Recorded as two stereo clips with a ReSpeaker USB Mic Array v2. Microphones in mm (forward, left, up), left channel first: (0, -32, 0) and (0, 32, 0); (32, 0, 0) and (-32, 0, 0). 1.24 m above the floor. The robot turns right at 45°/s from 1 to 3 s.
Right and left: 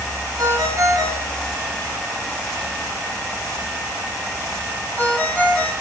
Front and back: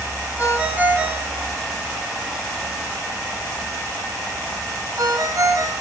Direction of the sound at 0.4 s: 115° left.